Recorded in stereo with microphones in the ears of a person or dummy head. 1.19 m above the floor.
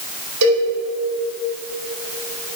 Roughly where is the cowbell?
Right.